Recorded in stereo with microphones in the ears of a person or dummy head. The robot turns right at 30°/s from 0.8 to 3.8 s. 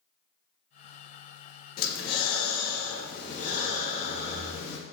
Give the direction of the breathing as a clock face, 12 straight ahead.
9 o'clock.